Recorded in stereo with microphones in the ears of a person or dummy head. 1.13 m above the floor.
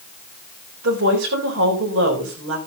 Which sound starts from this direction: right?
A woman speaking, at 0.8 s.